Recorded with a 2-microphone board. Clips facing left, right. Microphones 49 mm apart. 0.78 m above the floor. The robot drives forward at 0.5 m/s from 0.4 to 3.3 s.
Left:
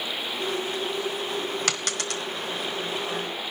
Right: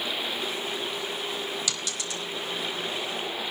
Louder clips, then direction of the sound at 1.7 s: Left 4 dB; 55° left (ahead or behind).